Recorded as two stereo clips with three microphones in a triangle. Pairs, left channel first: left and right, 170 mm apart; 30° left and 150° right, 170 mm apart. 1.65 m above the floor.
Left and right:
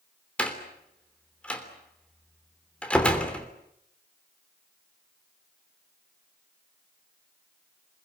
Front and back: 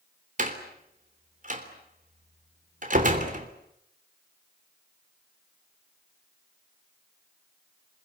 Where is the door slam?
175° left, 3 m.